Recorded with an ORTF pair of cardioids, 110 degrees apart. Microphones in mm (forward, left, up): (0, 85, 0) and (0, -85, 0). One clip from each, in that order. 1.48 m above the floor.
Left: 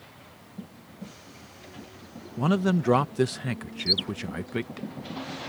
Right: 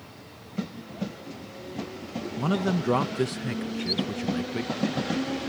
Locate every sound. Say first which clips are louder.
2.4 s a man speaking: left 2 dB; 20° left
3.8 s a bird: left 5 dB; 30° left